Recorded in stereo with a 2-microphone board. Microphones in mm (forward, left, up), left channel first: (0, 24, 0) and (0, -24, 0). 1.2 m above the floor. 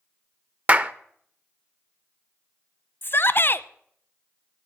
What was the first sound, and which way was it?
A clap, 30° right (ahead or behind).